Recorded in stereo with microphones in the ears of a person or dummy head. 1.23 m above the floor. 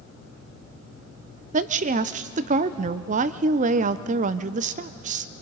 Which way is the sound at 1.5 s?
40° right (ahead or behind).